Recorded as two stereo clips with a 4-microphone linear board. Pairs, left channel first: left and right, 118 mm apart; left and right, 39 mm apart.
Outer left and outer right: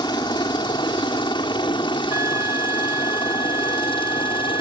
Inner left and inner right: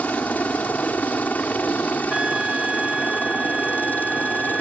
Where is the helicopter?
40° left (ahead or behind); by 4.6 s 45° left (ahead or behind).